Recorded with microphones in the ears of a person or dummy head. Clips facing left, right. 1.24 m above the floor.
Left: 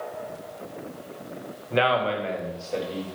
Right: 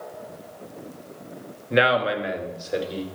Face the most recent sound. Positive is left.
turn(degrees=-15)  # may be behind; listen again after turning